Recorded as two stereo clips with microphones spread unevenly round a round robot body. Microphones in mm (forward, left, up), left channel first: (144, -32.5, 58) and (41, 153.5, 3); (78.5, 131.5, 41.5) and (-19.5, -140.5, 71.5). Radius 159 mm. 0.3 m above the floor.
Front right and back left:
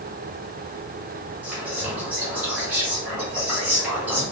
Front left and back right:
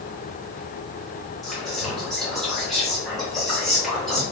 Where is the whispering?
145° left, 1.1 m.